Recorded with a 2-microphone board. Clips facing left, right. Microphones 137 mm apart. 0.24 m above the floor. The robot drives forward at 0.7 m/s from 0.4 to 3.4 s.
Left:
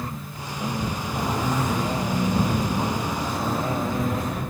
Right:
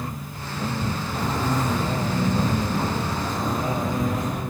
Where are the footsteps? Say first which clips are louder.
Even; 15° left (ahead or behind), 2.0 m; by 4.4 s centre (ahead or behind), 2.5 m.